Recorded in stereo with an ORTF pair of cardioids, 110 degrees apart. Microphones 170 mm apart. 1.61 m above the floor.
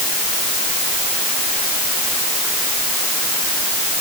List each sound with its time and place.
Only background noise.